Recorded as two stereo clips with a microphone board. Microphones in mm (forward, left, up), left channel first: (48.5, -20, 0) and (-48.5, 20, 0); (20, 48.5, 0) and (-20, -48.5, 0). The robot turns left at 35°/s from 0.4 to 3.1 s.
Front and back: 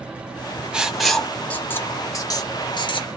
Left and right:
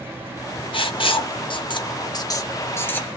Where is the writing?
80° left, 0.6 m; by 3.2 s 5° right, 0.6 m.